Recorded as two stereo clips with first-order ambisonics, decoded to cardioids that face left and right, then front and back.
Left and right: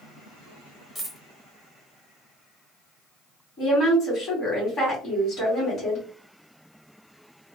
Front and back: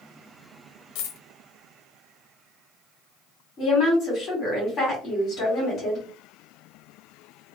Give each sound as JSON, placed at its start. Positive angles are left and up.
{"t": 0.9, "sound": "a dropped coin", "azimuth_deg": 5, "distance_m": 0.7}
{"t": 3.6, "sound": "a woman speaking", "azimuth_deg": 40, "distance_m": 1.8}